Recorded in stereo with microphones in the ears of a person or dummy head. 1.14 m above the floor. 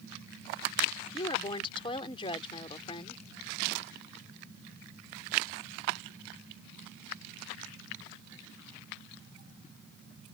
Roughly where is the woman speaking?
Left.